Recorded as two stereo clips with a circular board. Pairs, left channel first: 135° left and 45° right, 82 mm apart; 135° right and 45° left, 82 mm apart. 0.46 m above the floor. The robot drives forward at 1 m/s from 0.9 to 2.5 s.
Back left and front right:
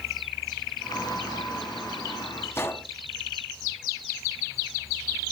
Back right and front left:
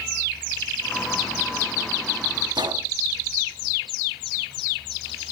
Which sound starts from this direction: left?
A gunshot, at 2.5 s.